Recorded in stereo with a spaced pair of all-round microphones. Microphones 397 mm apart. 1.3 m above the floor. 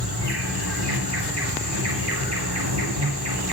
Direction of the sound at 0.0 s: 80° right.